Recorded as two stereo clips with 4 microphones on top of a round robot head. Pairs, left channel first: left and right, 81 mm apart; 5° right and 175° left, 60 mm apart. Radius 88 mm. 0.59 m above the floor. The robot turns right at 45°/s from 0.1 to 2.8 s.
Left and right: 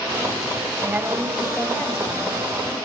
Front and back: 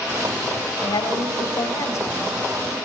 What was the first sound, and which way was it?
A woman speaking, 20° right.